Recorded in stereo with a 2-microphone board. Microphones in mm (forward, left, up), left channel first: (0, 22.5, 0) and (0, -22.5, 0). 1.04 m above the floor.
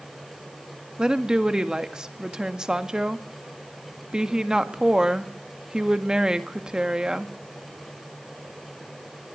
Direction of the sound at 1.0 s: 15° right (ahead or behind).